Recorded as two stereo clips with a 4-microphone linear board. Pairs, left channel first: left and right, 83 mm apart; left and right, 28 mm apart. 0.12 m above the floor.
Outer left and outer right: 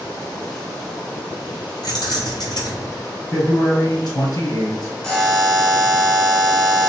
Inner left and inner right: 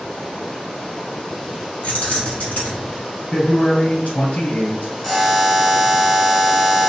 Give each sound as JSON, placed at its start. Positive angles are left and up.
{"t": 1.8, "sound": "keys jangling", "side_deg": 60, "distance_m": 2.0}
{"t": 3.3, "sound": "a man speaking", "side_deg": 55, "distance_m": 2.0}
{"t": 5.0, "sound": "a buzzer", "side_deg": 5, "distance_m": 1.3}